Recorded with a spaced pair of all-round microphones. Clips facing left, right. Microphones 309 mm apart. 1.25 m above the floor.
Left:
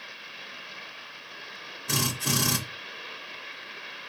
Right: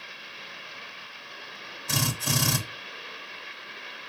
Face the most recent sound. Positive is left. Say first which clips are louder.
# left 1 dB
turn(degrees=70)  # may be behind; listen again after turning